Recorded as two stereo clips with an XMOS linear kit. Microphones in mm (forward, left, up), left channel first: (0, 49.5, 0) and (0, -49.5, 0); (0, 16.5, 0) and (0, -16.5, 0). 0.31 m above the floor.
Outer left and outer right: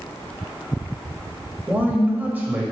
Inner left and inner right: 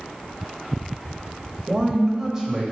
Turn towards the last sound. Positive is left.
turn(degrees=-15)  # may be behind; listen again after turning